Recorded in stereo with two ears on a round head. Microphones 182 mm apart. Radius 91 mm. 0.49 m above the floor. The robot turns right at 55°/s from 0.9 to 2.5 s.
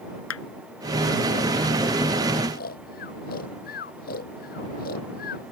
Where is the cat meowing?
No cat meowing in this recording.